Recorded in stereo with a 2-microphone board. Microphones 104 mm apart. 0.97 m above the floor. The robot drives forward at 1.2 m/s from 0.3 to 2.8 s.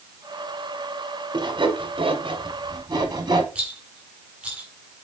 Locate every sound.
1.3 s sawing: 40° right (ahead or behind), 1.4 m
3.5 s a rattle: 10° right (ahead or behind), 2 m